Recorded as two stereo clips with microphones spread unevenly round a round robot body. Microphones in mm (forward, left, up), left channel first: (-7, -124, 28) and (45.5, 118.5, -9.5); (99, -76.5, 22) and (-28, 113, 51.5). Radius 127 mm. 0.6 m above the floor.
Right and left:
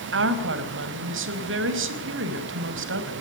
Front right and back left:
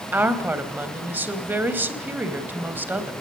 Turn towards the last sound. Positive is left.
turn(degrees=40)